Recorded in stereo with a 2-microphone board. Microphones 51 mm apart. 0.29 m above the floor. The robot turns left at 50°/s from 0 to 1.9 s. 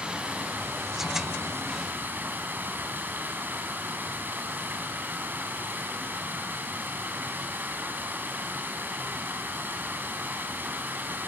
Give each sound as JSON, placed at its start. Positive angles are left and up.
{"t": 0.0, "sound": "running water", "azimuth_deg": -30, "distance_m": 2.5}